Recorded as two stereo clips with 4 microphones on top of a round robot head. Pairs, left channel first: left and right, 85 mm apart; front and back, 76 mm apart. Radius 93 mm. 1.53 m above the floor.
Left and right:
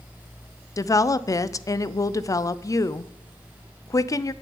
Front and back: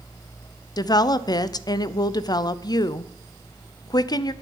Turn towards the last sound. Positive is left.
turn(degrees=35)